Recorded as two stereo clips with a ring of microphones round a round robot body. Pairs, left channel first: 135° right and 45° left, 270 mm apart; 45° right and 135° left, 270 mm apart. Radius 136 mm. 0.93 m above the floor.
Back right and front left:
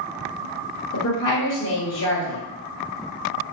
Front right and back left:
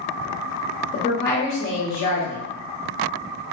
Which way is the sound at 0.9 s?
95° right.